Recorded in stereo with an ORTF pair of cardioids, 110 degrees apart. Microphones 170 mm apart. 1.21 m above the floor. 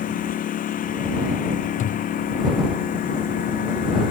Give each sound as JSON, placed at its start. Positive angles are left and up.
{"t": 0.0, "sound": "a lawn mower", "azimuth_deg": 50}
{"t": 1.8, "sound": "a thud", "azimuth_deg": 50}